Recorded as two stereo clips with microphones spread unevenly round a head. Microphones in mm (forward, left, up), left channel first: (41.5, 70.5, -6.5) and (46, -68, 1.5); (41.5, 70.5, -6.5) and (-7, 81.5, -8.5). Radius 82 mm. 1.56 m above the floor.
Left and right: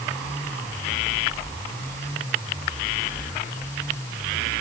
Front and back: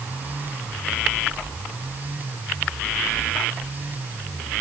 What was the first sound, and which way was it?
Only background noise.